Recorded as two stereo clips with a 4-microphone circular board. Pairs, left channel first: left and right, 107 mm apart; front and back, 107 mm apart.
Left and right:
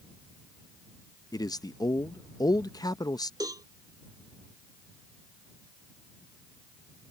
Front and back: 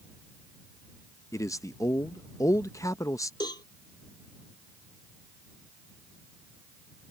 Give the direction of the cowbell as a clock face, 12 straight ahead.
1 o'clock.